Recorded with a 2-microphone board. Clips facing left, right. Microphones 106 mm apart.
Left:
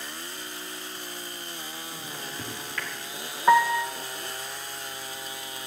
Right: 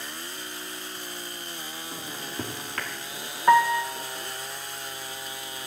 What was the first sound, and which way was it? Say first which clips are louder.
A microwave: right 5 dB; 50° right (ahead or behind).